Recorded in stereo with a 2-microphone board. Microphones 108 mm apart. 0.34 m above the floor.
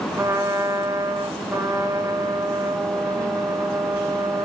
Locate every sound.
0.1 s a trumpet: 25° right (ahead or behind), 1.7 m